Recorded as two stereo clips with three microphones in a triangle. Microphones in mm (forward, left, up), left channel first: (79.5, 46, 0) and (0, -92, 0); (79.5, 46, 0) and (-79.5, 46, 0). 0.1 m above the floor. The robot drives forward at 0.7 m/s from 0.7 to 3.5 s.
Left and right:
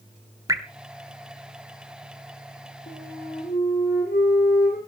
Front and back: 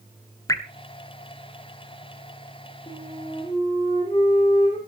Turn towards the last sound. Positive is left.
turn(degrees=55)